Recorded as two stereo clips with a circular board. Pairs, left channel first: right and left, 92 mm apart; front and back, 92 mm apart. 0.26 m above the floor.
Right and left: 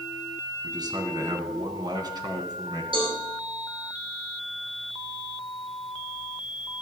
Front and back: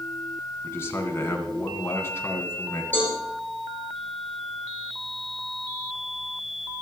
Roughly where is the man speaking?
Ahead left.